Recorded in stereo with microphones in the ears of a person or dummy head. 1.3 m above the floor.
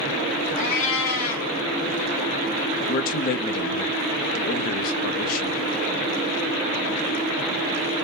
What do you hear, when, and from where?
0.6 s a cat meowing: 55° left (ahead or behind), 1.3 m
2.9 s a man speaking: 50° left (ahead or behind), 0.6 m